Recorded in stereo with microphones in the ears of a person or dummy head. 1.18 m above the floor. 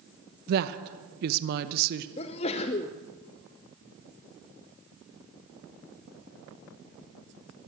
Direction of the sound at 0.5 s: 55° right (ahead or behind).